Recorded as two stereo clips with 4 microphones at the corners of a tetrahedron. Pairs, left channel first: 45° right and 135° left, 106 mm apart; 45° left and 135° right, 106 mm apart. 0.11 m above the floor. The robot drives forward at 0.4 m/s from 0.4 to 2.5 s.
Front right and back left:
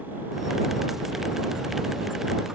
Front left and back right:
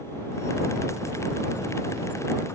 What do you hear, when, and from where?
Only background noise.